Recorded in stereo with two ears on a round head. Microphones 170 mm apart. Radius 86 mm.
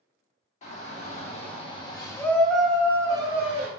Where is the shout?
40° left (ahead or behind), 1.5 m; by 3.7 s 35° right (ahead or behind), 0.9 m.